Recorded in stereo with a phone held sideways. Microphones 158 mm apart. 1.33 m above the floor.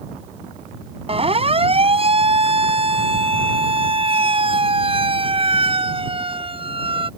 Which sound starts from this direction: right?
A siren, at 1.1 s.